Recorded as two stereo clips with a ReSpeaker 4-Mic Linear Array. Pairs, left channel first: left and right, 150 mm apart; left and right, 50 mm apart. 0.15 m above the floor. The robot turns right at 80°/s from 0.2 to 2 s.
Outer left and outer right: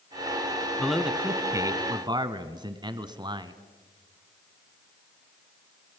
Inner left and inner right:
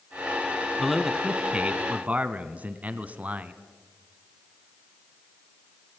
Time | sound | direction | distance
0.8 | a man speaking | 5° left (ahead or behind) | 1.1 m